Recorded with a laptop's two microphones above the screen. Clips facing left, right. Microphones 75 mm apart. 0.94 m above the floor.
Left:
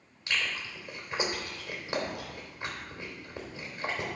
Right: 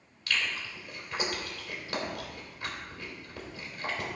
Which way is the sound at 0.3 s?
25° left (ahead or behind).